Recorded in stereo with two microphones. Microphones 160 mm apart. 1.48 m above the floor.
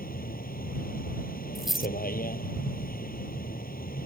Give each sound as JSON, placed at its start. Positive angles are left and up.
{"t": 0.0, "sound": "a vehicle", "side_deg": 65}
{"t": 1.6, "sound": "a dropped coin", "side_deg": 0}